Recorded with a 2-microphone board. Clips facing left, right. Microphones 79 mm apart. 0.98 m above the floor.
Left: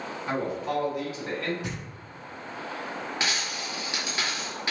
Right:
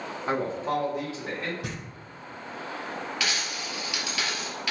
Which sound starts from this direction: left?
A dropped coin, at 3.2 s.